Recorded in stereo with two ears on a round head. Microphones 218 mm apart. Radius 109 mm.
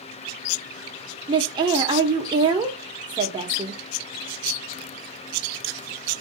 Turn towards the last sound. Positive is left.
turn(degrees=-20)  # may be behind; listen again after turning